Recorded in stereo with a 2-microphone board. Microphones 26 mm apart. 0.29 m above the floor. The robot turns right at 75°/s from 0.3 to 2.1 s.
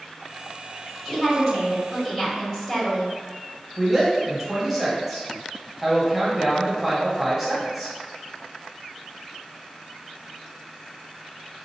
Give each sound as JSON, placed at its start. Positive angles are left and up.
{"t": 1.1, "sound": "a woman speaking", "side_deg": 15, "distance_m": 1.4}
{"t": 3.8, "sound": "a woman speaking", "side_deg": -5, "distance_m": 1.1}